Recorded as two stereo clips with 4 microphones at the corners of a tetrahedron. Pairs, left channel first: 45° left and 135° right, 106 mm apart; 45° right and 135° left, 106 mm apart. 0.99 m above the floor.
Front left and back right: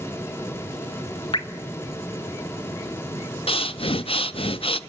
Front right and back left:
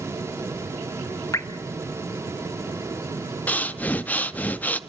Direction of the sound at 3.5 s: 30° left.